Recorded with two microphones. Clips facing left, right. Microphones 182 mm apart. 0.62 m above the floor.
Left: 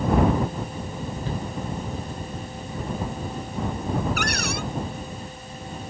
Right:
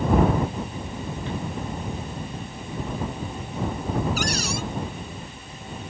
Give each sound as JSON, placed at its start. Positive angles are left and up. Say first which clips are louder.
{"t": 1.3, "sound": "a shout", "louder": "even", "side_deg": 35}
{"t": 4.2, "sound": "a cupboard door", "louder": "right 1 dB", "side_deg": 60}